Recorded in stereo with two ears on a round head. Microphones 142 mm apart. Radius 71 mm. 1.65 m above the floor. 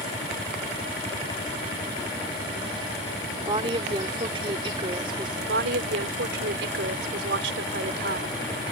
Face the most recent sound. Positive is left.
turn(degrees=-80)